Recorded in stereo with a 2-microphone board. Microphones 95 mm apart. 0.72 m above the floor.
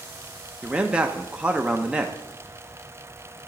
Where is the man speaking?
10° right (ahead or behind), 0.6 m.